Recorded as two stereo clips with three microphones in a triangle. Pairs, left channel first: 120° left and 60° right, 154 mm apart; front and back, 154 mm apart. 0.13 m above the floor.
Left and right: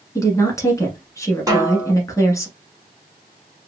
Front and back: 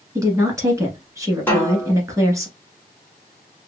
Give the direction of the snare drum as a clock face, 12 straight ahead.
2 o'clock.